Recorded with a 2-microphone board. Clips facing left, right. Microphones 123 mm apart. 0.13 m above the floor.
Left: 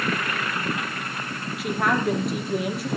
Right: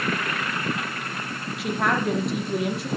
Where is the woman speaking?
Centre (ahead or behind), 4 m.